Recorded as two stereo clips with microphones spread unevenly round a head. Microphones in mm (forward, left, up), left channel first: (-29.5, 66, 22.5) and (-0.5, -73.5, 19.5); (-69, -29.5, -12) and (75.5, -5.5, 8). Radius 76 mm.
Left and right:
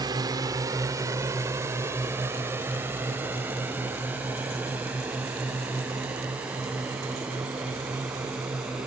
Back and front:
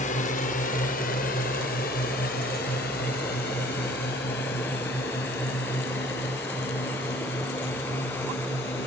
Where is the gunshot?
I don't hear a gunshot.